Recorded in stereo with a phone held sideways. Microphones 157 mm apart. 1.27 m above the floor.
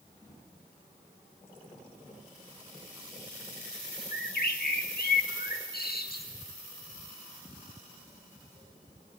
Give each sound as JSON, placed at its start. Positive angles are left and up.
{"t": 4.1, "sound": "a bird", "side_deg": 75, "distance_m": 1.9}